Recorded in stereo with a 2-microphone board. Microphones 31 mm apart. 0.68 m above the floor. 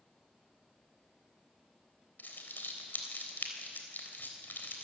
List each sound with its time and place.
2.2 s crumpling: 75° left (ahead or behind), 3.5 m